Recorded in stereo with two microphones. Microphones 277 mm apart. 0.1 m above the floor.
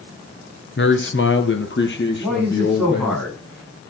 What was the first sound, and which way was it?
A man speaking, 40° left (ahead or behind).